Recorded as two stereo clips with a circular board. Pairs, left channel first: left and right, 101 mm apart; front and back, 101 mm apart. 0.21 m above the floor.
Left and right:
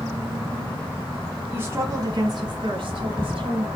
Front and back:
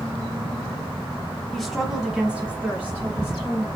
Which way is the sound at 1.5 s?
80° right.